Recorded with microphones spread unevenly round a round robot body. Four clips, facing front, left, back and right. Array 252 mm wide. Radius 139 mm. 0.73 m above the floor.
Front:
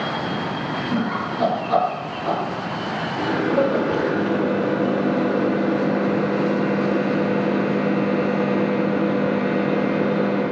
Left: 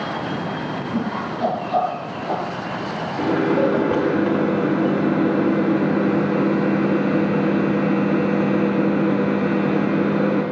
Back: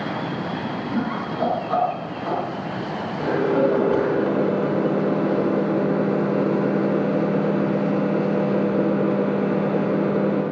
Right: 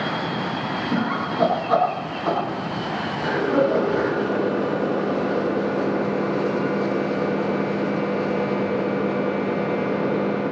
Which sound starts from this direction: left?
A microwave, at 3.2 s.